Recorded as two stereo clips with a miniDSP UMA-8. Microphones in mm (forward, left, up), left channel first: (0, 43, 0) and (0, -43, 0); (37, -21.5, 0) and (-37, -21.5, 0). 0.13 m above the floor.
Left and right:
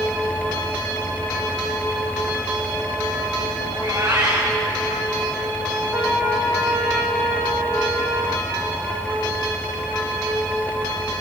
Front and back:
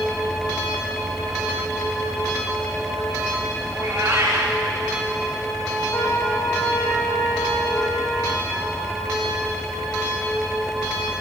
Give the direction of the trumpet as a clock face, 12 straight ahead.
1 o'clock.